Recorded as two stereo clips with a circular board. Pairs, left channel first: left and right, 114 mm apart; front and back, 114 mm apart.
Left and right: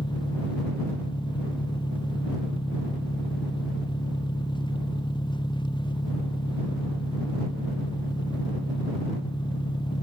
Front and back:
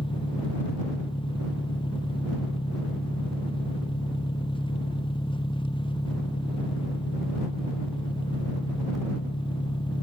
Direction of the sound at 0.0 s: 45° left.